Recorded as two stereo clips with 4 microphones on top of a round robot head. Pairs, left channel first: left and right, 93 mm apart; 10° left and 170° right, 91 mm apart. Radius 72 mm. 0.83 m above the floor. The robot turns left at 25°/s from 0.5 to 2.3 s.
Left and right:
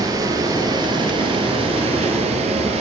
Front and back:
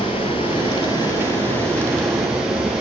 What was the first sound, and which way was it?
Running water, 40° right.